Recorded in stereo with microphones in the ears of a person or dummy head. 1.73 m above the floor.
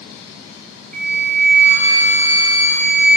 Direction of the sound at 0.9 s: 55° right (ahead or behind).